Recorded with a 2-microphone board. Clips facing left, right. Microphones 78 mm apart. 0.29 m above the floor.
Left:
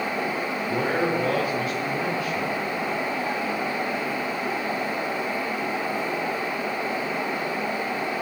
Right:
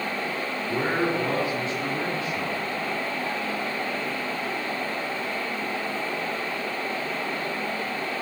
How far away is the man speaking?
About 4.5 m.